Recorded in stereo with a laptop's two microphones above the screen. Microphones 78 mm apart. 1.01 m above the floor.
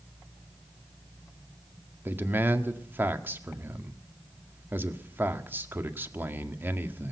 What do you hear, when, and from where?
2.0 s a man speaking: 25° right (ahead or behind), 1.6 m